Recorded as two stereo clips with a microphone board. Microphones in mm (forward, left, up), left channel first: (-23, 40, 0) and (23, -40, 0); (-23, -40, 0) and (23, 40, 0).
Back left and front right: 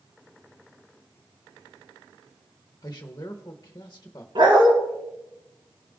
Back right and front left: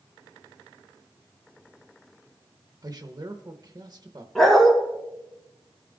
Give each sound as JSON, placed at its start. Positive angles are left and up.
{"t": 2.8, "sound": "a man speaking", "azimuth_deg": 80, "distance_m": 0.9}
{"t": 4.3, "sound": "a dog barking", "azimuth_deg": -35, "distance_m": 2.0}